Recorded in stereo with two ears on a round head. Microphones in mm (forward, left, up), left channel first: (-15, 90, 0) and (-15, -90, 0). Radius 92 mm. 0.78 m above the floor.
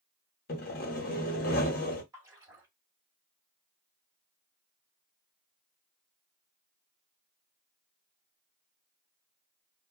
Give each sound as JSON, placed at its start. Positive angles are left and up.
{"t": 0.5, "sound": "sawing", "side_deg": 45, "distance_m": 0.9}
{"t": 2.1, "sound": "a splash", "side_deg": -15, "distance_m": 1.2}